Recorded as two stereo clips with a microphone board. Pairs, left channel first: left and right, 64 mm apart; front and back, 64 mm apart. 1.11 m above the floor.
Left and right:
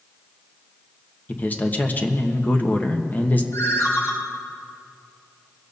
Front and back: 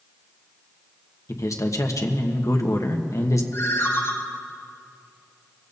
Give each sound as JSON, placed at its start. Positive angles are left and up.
{"t": 1.3, "sound": "a man speaking", "azimuth_deg": 30, "distance_m": 1.2}
{"t": 3.5, "sound": "a ringtone", "azimuth_deg": 45, "distance_m": 2.5}